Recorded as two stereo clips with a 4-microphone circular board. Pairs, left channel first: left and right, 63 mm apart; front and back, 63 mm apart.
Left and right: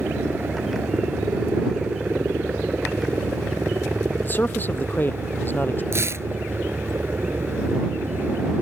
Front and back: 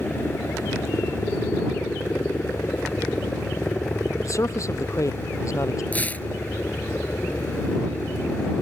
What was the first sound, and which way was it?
A helicopter, 45° right.